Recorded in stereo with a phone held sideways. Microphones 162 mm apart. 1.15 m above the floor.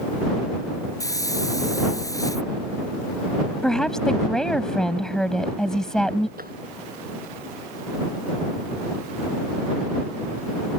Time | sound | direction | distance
1.0 | a hiss | 20° left (ahead or behind) | ?
3.6 | a woman speaking | 5° left (ahead or behind) | ?
6.4 | tapping | 65° right (ahead or behind) | ?